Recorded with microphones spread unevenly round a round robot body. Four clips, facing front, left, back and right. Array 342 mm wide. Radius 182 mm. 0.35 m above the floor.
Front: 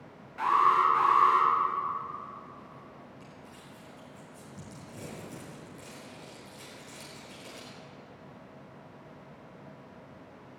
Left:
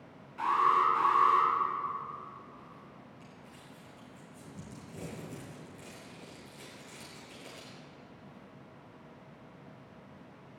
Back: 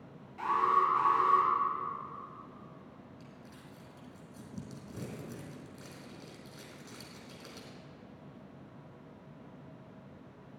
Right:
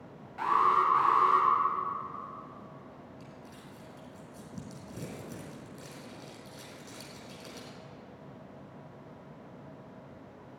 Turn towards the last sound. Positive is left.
turn(degrees=-120)